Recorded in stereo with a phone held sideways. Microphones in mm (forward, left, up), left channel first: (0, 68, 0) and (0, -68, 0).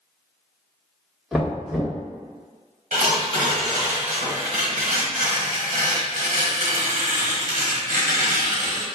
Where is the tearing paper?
80° right, 1.2 m.